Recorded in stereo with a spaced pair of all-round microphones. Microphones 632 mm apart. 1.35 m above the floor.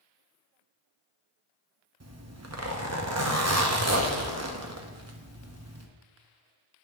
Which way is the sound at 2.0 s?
25° right (ahead or behind).